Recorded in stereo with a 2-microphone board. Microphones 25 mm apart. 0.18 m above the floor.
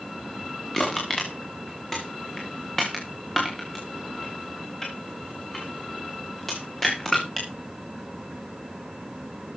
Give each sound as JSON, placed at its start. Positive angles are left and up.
{"t": 0.7, "sound": "crushing", "side_deg": 15, "distance_m": 4.5}